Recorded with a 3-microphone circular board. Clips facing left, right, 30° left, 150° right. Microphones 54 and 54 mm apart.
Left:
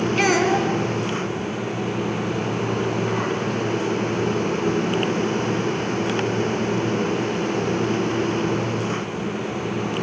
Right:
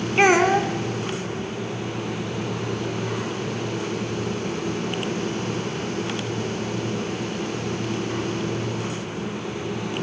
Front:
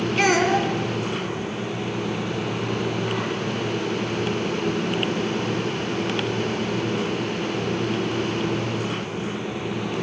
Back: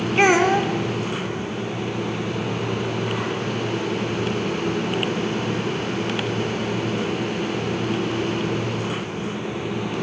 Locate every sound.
0.2 s a child speaking: 115° right, 0.9 m